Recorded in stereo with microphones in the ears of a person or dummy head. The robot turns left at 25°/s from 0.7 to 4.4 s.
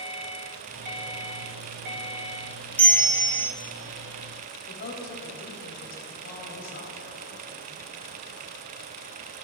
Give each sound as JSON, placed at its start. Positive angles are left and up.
{"t": 2.8, "sound": "a bell", "side_deg": 5, "distance_m": 0.6}
{"t": 4.7, "sound": "a woman speaking", "side_deg": 55, "distance_m": 3.0}